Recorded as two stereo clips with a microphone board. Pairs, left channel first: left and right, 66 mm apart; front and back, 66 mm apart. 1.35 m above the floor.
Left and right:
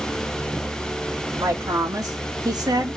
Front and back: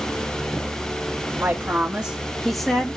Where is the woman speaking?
115° right, 1.7 m; by 3.0 s 75° right, 1.4 m.